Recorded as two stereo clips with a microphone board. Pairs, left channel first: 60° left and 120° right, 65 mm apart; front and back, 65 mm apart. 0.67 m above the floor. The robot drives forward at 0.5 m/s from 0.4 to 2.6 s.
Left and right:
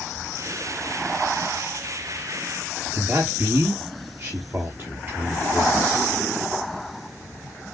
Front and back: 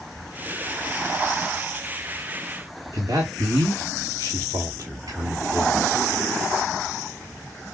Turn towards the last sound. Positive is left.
turn(degrees=-165)